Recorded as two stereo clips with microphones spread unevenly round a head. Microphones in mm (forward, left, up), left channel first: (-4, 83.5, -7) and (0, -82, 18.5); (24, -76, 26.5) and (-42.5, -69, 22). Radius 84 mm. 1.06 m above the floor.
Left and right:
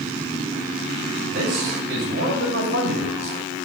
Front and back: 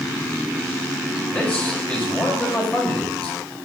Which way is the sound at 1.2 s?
75° right.